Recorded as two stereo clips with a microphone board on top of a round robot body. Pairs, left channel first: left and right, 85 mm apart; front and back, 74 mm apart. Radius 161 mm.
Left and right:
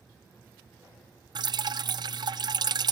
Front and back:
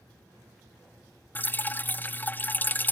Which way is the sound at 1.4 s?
65° right.